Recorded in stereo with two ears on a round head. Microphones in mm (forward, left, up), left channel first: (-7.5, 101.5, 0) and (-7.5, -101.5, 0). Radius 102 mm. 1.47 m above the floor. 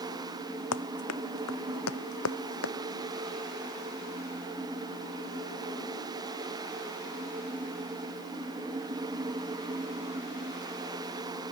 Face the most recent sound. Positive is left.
turn(degrees=65)  # may be behind; listen again after turning